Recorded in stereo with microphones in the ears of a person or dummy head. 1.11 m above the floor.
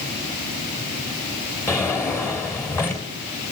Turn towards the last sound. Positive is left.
turn(degrees=15)  # may be behind; listen again after turning